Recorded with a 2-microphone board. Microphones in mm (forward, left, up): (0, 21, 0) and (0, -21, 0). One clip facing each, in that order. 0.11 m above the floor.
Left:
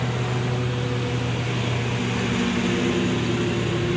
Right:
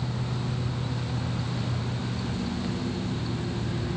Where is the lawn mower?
80° left.